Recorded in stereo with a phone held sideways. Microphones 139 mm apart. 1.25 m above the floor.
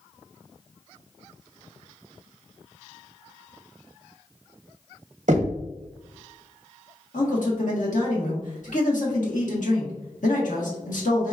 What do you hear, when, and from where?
5.3 s knocking: 60° right (ahead or behind), 0.8 m
7.1 s a man speaking: 70° left (ahead or behind), 1.3 m